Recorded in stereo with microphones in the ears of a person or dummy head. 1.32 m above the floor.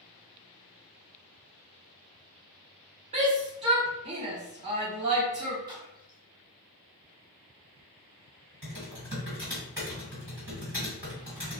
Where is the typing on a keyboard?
15° right (ahead or behind), 1.5 m.